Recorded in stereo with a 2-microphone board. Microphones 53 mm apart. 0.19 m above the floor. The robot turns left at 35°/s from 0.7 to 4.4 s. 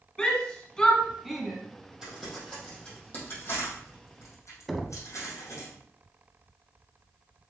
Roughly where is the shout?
Centre.